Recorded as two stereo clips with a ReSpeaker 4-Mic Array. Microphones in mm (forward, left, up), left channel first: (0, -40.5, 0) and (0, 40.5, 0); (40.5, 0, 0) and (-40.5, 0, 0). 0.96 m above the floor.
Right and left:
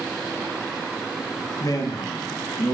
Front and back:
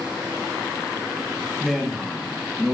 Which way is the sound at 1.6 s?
95° right.